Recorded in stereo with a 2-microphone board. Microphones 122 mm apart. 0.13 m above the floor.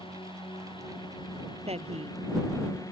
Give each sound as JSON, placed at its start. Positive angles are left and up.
{"t": 0.0, "sound": "a drone", "side_deg": 45}
{"t": 1.7, "sound": "a woman speaking", "side_deg": -60}